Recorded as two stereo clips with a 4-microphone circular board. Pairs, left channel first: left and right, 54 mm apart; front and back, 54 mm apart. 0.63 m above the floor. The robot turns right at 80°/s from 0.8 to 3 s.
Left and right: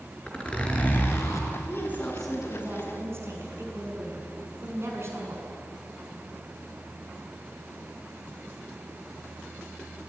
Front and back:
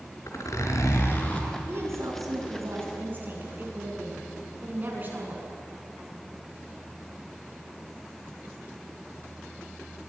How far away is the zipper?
About 4 m.